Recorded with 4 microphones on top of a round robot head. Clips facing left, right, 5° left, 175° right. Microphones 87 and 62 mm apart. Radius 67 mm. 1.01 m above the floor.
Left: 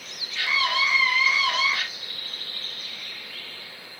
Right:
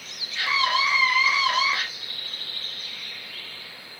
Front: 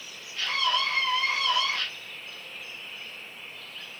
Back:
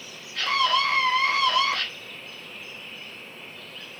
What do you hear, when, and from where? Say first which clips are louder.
0.3 s a scream: right 2 dB, back 5 dB; 155° right, 2.5 m